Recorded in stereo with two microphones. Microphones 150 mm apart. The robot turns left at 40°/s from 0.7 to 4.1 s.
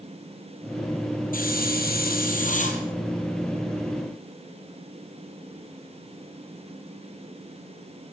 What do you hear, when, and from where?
1.3 s a hiss: 110° left, 5 m; by 2.8 s 50° left, 5 m